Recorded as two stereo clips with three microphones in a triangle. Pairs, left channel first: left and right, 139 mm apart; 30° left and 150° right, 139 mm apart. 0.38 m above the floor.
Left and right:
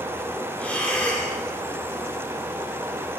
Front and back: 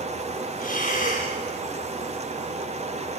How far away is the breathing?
About 8 m.